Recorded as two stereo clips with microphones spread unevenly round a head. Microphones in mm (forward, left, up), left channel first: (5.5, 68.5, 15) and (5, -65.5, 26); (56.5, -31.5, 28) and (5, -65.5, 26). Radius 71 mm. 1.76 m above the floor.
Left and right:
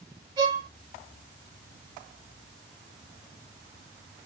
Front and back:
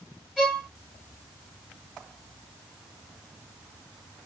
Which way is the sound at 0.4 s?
45° right.